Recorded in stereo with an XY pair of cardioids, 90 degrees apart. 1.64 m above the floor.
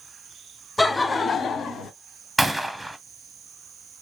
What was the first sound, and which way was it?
Laughter, 10° left.